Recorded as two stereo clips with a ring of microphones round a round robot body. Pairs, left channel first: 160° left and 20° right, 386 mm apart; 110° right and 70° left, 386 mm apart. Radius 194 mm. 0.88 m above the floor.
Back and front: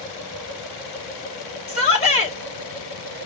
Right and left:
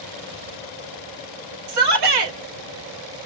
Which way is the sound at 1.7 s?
85° left.